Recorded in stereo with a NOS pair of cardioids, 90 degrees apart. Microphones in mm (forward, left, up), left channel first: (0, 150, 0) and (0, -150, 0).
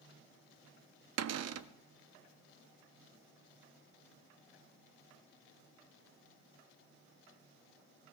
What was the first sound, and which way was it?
A cupboard door, 55° right.